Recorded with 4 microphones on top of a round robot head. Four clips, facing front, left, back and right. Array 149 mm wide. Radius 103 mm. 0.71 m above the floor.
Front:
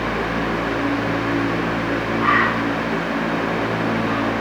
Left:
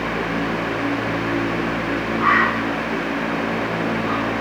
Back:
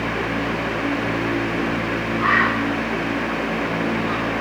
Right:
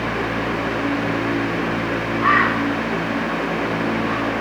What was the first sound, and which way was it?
A bird, 120° left.